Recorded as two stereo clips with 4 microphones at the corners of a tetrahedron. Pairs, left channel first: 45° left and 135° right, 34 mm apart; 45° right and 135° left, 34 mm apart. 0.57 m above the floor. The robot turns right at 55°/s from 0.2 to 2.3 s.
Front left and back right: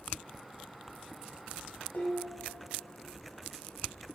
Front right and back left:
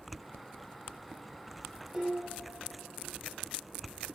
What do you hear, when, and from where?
1.9 s dishes clattering: 65° left, 3 m; by 3.0 s 85° left, 3 m